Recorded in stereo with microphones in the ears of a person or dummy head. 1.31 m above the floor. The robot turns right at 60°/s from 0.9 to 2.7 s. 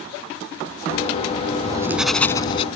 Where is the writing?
30° right; by 2.7 s 30° left.